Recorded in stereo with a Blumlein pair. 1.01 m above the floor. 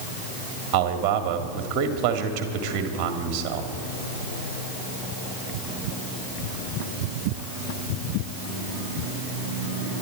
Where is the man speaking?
35° right, 1.8 m.